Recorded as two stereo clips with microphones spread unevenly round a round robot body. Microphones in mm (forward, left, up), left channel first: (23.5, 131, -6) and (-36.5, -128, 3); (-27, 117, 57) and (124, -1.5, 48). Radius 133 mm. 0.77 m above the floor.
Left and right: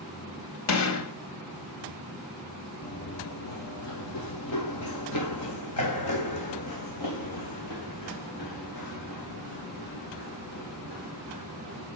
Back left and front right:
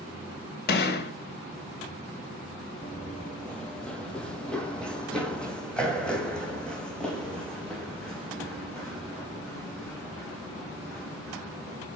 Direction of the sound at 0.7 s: 110° left.